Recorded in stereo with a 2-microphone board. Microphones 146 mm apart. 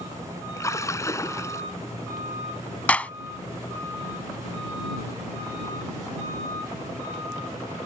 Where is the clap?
10° left (ahead or behind).